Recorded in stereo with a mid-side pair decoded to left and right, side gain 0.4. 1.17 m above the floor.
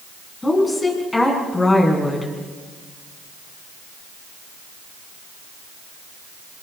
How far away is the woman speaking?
About 9 m.